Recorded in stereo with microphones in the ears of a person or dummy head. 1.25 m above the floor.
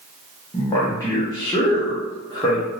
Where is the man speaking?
20° left (ahead or behind), 0.7 m.